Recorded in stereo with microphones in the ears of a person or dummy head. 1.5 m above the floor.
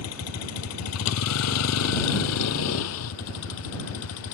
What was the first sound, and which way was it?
A vehicle, 85° left.